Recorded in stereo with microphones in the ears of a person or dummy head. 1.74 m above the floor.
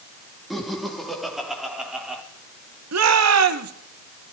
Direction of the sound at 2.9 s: 90° right.